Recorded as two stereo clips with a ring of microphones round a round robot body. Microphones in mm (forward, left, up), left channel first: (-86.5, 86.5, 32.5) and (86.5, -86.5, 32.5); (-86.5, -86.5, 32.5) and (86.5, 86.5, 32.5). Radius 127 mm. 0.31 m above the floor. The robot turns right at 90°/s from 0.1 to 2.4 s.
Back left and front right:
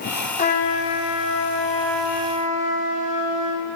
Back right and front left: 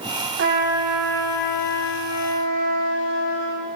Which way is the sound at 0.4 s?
80° left.